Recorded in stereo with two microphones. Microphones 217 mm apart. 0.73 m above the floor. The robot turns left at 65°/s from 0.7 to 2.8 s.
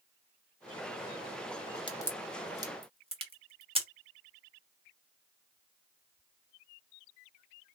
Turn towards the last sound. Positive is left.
turn(degrees=-25)  # may be behind; listen again after turning